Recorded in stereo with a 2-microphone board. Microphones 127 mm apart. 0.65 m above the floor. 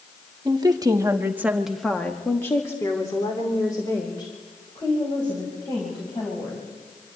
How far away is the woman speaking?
About 1.6 m.